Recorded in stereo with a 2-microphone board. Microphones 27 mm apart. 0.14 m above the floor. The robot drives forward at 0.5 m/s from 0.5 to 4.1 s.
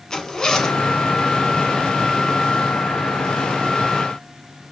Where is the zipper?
20° left (ahead or behind), 1.1 m.